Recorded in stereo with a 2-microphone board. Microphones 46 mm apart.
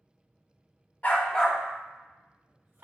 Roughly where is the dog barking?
Left.